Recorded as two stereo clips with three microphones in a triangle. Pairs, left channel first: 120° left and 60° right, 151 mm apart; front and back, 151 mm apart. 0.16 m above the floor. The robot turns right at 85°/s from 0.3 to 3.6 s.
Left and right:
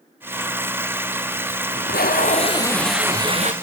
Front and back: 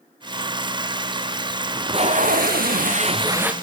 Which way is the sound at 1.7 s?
105° left.